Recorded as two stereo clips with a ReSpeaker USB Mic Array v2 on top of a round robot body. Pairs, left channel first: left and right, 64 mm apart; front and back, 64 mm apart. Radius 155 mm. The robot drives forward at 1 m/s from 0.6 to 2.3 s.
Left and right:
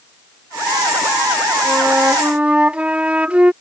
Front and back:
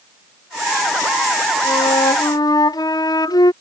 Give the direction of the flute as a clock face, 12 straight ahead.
12 o'clock.